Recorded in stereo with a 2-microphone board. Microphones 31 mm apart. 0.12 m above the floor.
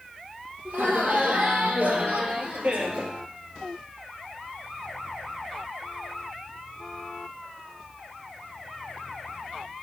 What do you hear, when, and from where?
0.7 s laughter: 65° right (ahead or behind), 3 m; by 3.1 s 40° right (ahead or behind), 2 m